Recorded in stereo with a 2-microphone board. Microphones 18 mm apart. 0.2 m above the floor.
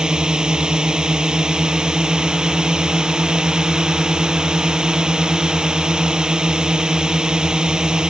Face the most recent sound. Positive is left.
turn(degrees=-40)  # may be behind; listen again after turning